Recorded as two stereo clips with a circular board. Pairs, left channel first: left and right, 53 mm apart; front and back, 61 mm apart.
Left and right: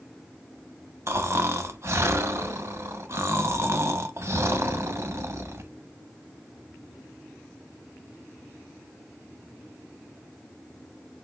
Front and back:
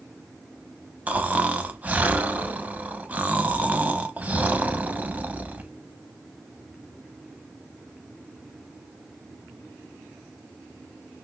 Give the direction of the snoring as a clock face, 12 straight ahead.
4 o'clock.